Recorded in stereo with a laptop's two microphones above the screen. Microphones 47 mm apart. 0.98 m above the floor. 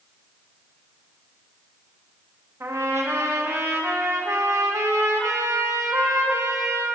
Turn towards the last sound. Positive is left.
turn(degrees=-75)  # may be behind; listen again after turning